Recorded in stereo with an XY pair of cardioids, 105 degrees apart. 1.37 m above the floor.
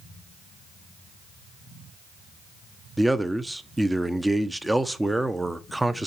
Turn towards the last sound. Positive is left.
turn(degrees=-10)